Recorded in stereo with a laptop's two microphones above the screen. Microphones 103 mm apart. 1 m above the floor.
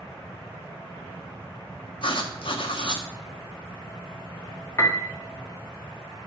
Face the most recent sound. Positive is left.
turn(degrees=30)  # may be behind; listen again after turning